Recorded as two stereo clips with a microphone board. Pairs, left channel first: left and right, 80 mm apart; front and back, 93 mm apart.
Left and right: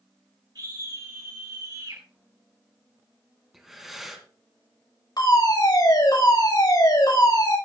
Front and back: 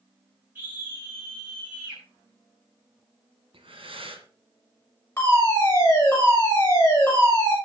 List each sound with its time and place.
0.6 s a scream: 110° right, 5.5 m
3.5 s breathing: 175° right, 2.5 m
5.2 s a fire alarm: 65° left, 6.5 m